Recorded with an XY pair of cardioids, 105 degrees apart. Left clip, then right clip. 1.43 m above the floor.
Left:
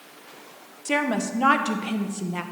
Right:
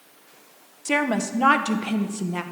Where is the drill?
I don't hear a drill.